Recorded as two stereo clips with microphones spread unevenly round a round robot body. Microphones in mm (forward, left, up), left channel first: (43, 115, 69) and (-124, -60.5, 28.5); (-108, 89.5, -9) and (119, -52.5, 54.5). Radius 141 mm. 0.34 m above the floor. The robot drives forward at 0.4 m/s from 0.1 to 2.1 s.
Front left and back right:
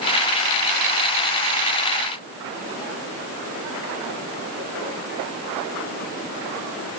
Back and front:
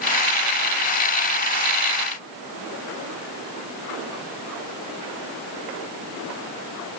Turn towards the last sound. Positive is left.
No sound to turn to.